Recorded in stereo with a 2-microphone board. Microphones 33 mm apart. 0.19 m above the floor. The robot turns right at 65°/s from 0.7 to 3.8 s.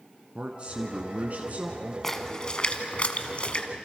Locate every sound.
0.3 s a man speaking: 130° right, 1.8 m; by 1.9 s 50° right, 1.8 m
2.0 s a splash: 10° left (ahead or behind), 1.5 m; by 3.7 s 35° left (ahead or behind), 1.5 m